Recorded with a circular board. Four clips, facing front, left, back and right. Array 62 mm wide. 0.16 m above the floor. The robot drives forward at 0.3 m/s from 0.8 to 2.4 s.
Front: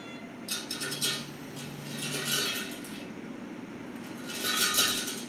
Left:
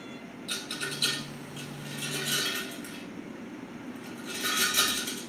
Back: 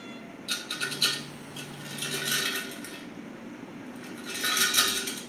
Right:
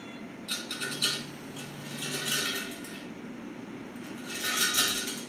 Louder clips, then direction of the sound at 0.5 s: Left 1 dB, back 4 dB; 175° left.